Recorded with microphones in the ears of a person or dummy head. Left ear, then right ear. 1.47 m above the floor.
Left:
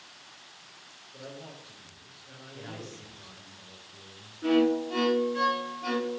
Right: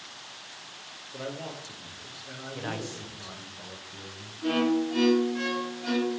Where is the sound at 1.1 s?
70° right (ahead or behind), 0.9 m.